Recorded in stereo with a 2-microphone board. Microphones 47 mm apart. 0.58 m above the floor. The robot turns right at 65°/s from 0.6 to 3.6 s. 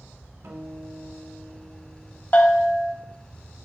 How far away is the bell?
About 0.5 m.